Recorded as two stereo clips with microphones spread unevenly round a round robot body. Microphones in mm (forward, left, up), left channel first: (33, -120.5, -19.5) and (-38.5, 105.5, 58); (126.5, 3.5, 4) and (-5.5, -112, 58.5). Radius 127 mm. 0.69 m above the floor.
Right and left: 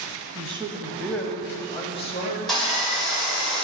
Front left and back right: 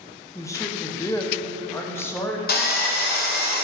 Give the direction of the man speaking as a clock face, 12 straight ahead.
11 o'clock.